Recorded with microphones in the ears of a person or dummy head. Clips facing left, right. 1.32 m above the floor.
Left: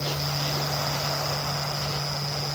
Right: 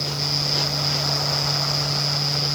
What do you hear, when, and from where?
Only background noise.